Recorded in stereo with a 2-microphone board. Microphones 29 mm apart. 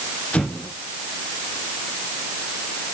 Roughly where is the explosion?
Left.